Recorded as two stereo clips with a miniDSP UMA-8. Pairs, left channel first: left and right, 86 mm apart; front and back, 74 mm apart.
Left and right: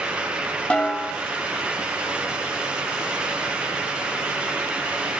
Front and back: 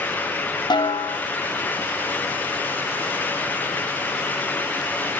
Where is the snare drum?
15° left, 2.5 m.